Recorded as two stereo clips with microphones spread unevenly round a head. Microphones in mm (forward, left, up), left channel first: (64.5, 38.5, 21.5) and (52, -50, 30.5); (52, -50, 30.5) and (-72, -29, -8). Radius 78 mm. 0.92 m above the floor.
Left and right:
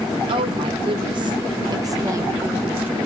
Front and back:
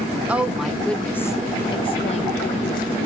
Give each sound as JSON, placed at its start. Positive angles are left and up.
{"t": 0.3, "sound": "a woman speaking", "azimuth_deg": -125, "distance_m": 1.4}